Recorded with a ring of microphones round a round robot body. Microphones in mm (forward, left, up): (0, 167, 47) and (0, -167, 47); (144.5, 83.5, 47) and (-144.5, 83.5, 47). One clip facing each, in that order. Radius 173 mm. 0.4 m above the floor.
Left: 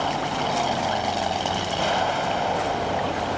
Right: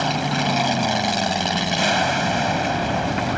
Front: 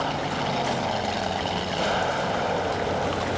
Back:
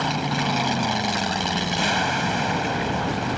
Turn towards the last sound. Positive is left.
turn(degrees=-125)